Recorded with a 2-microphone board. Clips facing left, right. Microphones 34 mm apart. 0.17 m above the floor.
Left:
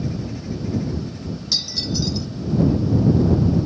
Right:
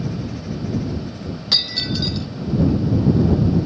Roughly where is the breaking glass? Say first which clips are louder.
Right 4 dB; right.